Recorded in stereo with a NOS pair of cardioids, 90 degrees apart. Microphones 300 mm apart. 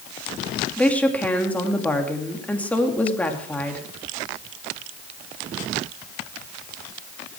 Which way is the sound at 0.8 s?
5° left.